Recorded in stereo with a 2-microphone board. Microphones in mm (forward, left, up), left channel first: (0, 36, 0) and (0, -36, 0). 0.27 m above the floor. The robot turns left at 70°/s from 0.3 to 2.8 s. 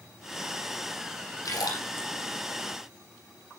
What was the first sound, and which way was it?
A splash, 50° left (ahead or behind).